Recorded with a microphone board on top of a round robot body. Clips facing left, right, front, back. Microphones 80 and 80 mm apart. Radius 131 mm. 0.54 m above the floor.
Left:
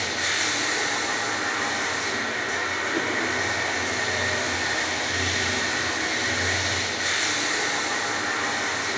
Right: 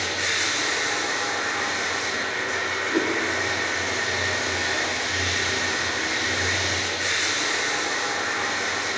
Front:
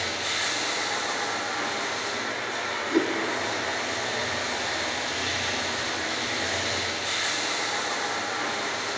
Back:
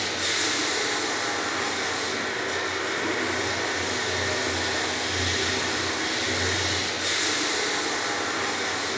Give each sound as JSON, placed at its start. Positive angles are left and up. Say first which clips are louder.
{"t": 0.0, "sound": "running water", "louder": "even, back 2 dB", "azimuth_deg": -175, "distance_m": 6.5}
{"t": 2.9, "sound": "a whoosh", "louder": "right 5 dB, front 8 dB", "azimuth_deg": -30, "distance_m": 4.5}